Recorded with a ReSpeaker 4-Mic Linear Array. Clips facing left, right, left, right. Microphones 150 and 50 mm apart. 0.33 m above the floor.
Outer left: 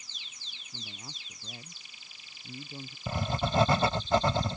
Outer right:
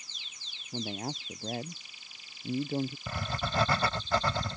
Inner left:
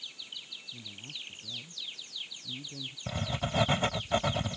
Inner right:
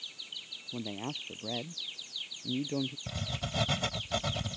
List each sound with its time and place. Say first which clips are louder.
0.7 s a man speaking: outer right 14 dB, inner right 11 dB; 65° right (ahead or behind); by 3.0 s 55° right (ahead or behind)
3.1 s writing: outer left 4 dB, inner left 4 dB; 25° left (ahead or behind)